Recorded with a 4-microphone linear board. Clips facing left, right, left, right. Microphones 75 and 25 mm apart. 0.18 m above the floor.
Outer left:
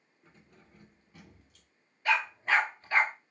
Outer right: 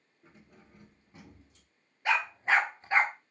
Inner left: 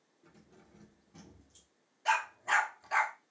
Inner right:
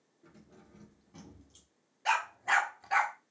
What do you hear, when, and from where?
0.2 s keys jangling: 5° right (ahead or behind), 1.7 m; by 1.7 s 30° right (ahead or behind), 1.2 m
2.0 s a dog barking: 20° right (ahead or behind), 1.2 m